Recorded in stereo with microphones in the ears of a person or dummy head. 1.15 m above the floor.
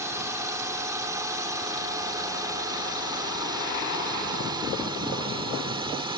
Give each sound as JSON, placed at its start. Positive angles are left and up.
{"t": 0.0, "sound": "a drone", "side_deg": -15}